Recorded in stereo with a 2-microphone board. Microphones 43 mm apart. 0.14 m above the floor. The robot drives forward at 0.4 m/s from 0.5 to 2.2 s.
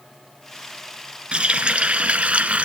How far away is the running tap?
About 1.5 m.